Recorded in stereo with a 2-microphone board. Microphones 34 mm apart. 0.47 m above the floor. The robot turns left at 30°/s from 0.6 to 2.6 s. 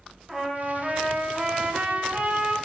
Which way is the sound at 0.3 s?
5° right.